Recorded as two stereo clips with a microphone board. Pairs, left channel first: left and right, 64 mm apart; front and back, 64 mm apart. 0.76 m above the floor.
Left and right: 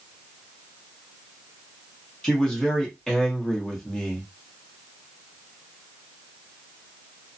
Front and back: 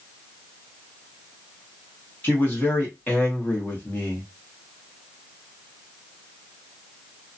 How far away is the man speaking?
About 1.2 m.